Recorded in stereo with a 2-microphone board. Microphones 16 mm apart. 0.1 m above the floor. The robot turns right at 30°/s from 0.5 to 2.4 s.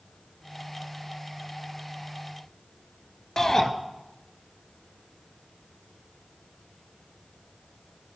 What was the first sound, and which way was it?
A shout, 30° left (ahead or behind).